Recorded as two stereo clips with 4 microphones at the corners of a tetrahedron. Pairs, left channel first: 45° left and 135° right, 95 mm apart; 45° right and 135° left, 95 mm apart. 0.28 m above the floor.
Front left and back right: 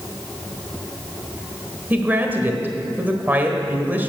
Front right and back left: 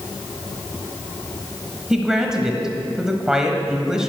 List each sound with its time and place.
1.9 s a woman speaking: 150° right, 1.2 m